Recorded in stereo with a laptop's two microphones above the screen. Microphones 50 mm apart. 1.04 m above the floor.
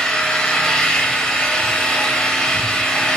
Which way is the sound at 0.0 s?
15° left (ahead or behind).